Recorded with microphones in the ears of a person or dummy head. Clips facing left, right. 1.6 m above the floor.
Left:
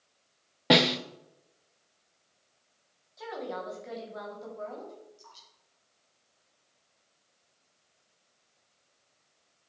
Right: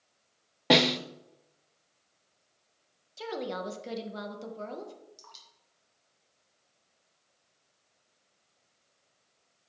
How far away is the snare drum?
About 0.5 m.